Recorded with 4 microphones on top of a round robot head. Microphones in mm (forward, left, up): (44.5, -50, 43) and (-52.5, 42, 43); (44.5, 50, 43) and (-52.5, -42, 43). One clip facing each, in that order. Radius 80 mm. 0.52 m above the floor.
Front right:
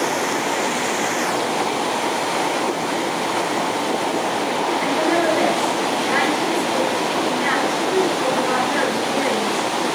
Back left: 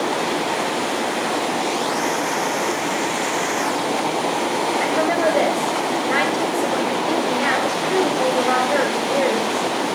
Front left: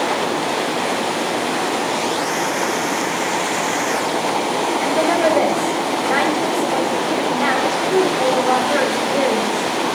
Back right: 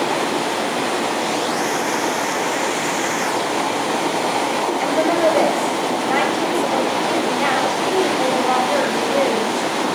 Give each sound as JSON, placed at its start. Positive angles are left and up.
{"t": 4.8, "sound": "a woman speaking", "azimuth_deg": 140, "distance_m": 2.5}